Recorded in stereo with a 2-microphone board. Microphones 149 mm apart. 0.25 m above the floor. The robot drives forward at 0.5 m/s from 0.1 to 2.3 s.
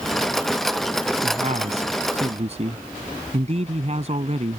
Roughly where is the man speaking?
Right.